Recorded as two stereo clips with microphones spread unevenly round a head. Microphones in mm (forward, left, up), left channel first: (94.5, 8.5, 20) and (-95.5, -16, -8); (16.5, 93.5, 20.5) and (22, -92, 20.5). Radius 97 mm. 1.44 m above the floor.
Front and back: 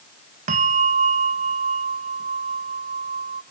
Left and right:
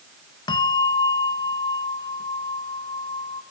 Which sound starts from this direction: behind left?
A bell, at 0.5 s.